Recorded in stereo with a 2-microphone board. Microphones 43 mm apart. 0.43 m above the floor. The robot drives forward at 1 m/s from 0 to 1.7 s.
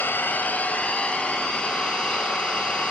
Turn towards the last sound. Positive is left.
turn(degrees=25)  # may be behind; listen again after turning